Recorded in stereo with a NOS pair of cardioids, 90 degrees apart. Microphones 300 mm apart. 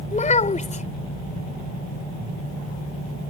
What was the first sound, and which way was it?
A child speaking, 25° left.